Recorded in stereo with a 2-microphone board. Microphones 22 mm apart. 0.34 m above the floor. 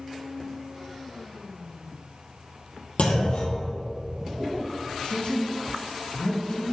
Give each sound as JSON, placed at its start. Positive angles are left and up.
{"t": 3.0, "sound": "a clunk", "side_deg": 65, "distance_m": 1.8}
{"t": 5.0, "sound": "a woman speaking", "side_deg": 65, "distance_m": 2.0}